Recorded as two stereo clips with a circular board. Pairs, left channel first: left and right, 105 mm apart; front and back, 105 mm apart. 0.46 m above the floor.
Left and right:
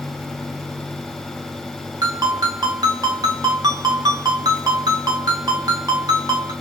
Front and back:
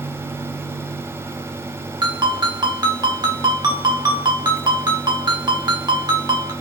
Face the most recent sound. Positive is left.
turn(degrees=-140)